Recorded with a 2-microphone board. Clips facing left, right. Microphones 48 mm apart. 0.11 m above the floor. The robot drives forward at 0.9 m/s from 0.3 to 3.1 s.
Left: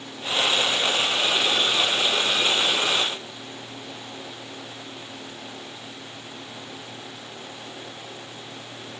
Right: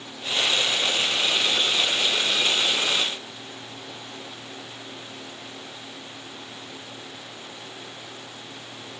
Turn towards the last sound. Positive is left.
No sound to turn to.